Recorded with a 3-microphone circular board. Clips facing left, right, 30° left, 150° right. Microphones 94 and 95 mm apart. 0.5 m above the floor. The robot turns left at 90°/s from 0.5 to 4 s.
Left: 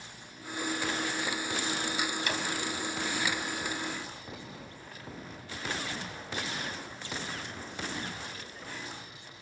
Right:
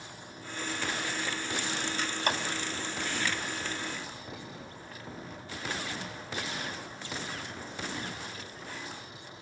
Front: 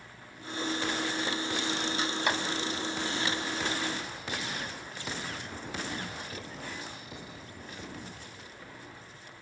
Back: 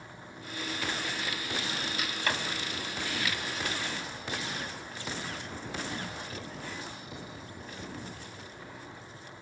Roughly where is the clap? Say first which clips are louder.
Right 3 dB, front 1 dB; ahead right.